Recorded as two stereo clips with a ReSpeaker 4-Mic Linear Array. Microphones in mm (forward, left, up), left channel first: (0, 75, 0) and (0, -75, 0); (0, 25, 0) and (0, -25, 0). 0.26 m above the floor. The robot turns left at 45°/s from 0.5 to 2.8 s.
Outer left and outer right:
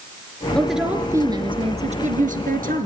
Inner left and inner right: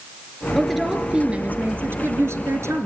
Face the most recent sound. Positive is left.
turn(degrees=-95)